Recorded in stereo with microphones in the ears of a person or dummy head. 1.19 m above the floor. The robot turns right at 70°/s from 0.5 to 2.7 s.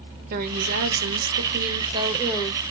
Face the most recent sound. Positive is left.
turn(degrees=25)